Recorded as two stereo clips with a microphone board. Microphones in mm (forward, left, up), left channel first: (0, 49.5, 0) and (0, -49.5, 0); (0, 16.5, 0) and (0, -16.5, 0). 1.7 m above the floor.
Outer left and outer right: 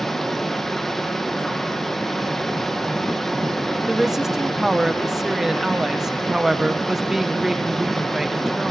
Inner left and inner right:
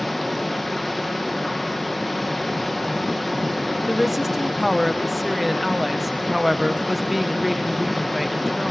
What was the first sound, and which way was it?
Running water, 5° left (ahead or behind).